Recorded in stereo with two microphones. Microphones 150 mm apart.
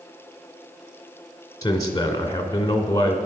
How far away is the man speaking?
About 1.9 m.